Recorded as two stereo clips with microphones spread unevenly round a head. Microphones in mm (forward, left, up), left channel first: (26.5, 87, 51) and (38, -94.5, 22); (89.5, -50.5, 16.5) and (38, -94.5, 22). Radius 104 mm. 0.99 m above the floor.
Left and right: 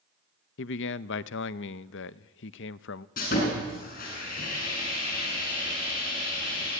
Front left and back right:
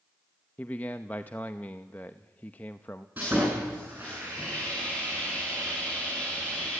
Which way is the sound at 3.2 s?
140° left.